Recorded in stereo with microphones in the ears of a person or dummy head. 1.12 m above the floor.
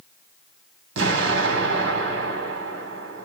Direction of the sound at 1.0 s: 75° right (ahead or behind).